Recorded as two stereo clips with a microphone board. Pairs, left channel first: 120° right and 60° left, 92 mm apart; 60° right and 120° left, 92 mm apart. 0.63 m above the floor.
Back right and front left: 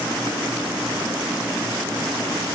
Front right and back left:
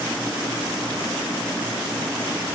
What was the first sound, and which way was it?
Only background noise.